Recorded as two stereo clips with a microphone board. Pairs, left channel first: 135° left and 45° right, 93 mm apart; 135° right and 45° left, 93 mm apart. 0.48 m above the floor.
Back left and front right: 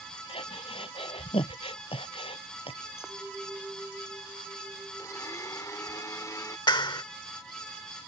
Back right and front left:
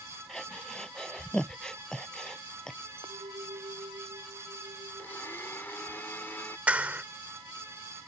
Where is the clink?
35° left.